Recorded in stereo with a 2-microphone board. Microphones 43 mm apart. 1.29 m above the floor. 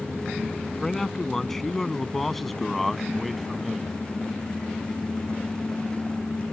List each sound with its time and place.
0.8 s a man speaking: 10° left (ahead or behind); by 3.9 s 5° right (ahead or behind)